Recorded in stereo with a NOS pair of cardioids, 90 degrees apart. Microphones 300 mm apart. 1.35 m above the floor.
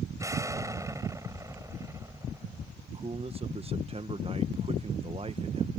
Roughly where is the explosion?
Ahead.